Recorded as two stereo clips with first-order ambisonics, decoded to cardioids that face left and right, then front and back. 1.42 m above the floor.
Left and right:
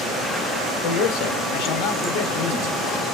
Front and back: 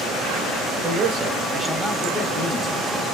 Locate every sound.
0.8 s a man speaking: 125° left, 1.0 m; by 2.8 s 50° left, 1.0 m